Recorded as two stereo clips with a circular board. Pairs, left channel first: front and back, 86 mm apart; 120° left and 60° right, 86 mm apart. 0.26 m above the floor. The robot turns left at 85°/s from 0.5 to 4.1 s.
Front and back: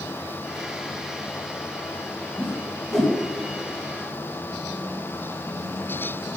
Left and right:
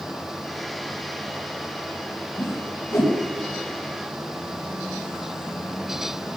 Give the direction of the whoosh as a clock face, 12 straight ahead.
8 o'clock.